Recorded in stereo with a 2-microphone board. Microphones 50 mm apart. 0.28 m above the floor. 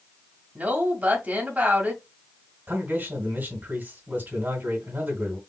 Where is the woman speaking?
35° right (ahead or behind), 1.8 m.